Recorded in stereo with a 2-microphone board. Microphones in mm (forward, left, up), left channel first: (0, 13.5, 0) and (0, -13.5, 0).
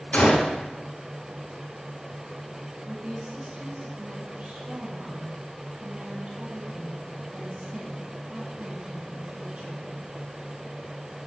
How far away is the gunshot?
About 5 m.